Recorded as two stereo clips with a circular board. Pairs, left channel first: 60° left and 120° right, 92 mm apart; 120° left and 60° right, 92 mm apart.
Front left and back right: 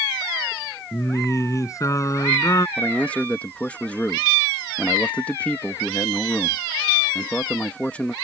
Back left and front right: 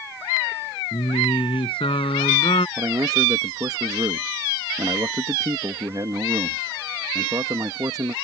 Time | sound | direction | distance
0.9 | singing | 115° left | ?
2.8 | a man speaking | 15° right | ?